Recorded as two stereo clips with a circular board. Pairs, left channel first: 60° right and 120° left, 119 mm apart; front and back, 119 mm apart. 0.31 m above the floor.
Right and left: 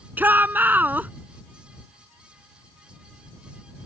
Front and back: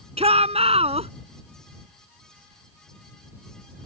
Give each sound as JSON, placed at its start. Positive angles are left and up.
{"t": 0.2, "sound": "a shout", "azimuth_deg": -170}